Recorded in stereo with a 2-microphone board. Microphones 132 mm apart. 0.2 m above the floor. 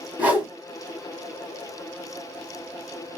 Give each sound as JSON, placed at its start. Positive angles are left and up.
{"t": 0.2, "sound": "a whoosh", "side_deg": -15, "distance_m": 1.1}